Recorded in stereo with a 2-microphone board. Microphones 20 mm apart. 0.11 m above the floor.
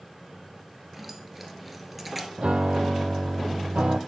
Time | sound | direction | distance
0.9 | keys jangling | 5° right (ahead or behind) | 1.3 m
2.4 | a piano | 75° right (ahead or behind) | 0.7 m